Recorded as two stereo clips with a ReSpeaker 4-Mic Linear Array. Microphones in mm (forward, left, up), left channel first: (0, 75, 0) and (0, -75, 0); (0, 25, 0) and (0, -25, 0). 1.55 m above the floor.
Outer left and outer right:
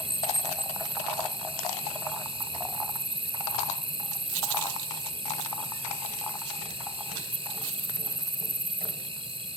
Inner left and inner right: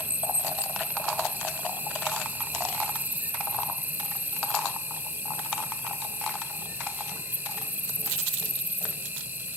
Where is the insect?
40° right (ahead or behind).